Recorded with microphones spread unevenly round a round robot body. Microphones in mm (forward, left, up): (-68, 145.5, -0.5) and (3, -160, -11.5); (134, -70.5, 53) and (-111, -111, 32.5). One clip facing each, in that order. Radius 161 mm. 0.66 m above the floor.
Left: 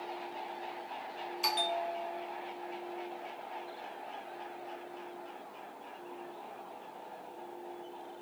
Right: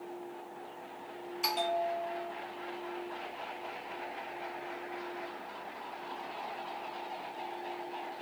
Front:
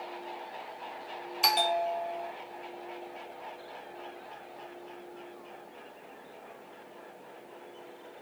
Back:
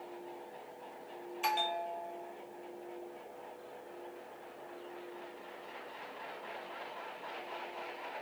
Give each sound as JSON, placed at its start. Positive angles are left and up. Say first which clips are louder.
{"t": 1.4, "sound": "a bell", "louder": "right 3 dB, front 9 dB", "azimuth_deg": 15}